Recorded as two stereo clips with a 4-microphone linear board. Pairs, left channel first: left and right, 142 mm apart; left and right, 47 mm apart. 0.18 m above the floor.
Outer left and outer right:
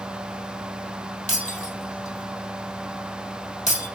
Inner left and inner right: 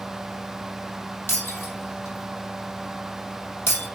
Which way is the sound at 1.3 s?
55° left (ahead or behind).